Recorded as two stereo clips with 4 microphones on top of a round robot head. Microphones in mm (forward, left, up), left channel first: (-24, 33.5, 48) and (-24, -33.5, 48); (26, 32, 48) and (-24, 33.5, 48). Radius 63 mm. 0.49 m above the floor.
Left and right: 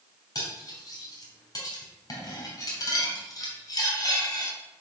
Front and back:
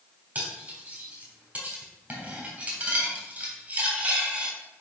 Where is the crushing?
I don't hear crushing.